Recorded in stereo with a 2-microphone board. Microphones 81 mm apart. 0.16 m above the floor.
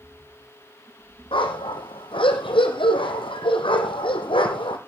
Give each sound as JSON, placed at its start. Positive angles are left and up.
{"t": 1.3, "sound": "a dog barking", "side_deg": 80, "distance_m": 3.0}